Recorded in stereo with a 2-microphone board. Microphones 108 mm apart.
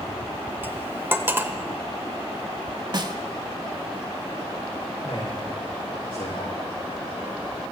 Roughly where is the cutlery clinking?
Centre.